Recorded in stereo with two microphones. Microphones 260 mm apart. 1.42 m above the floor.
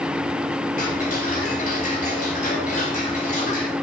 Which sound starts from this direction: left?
Ticking, at 0.8 s.